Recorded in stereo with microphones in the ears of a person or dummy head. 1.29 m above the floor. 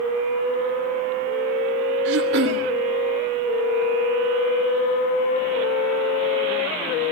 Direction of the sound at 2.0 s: 70° right (ahead or behind).